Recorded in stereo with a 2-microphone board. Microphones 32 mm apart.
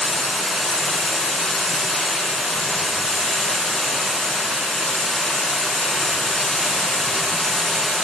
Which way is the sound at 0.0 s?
15° left (ahead or behind).